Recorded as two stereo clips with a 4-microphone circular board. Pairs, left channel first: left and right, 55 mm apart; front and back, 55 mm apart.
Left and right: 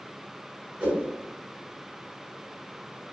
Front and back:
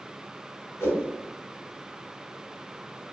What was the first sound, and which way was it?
A whoosh, 30° right.